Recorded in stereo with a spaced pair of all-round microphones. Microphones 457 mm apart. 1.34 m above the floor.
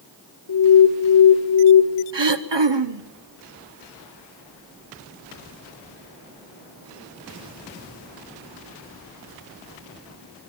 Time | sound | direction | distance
0.5 | an alarm | 60° left (ahead or behind) | 0.9 m
2.1 | throat clearing | 65° right (ahead or behind) | 0.9 m